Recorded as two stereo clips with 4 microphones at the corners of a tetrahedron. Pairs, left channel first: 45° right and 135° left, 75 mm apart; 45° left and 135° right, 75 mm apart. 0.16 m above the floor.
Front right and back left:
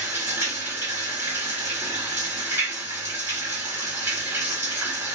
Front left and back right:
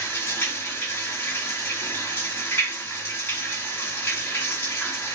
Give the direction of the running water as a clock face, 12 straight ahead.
9 o'clock.